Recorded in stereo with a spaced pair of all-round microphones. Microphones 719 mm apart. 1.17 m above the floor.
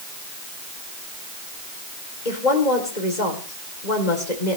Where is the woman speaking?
75° left (ahead or behind), 3.5 m.